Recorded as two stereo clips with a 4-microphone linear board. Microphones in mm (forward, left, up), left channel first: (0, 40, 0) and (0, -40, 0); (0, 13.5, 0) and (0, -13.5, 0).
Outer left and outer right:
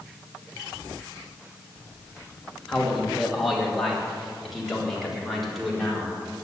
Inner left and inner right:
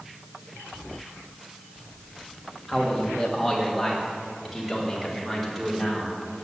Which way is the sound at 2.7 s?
5° left (ahead or behind).